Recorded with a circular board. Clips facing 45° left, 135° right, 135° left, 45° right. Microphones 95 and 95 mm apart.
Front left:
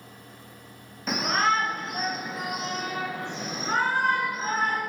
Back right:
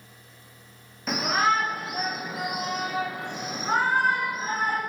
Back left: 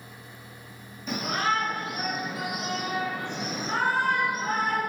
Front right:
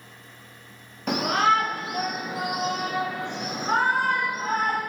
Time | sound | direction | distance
1.1 | a shout | 45° right | 0.9 m